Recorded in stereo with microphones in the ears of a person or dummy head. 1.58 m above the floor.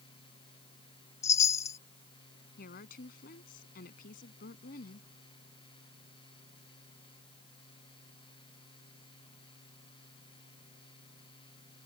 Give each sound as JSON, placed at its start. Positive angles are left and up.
{"t": 0.0, "sound": "a fan", "side_deg": 25}
{"t": 1.2, "sound": "a chime", "side_deg": 15}
{"t": 2.6, "sound": "a woman speaking", "side_deg": 55}